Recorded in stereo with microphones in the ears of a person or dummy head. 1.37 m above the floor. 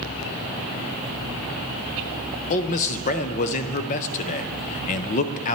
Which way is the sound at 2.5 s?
45° left (ahead or behind).